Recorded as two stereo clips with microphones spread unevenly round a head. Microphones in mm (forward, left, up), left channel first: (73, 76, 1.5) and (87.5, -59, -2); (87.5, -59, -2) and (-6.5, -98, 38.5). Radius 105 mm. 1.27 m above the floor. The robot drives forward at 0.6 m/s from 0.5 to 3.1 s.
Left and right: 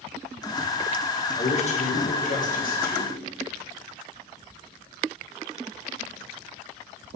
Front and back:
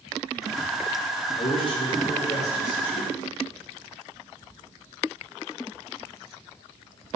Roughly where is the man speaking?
Ahead left.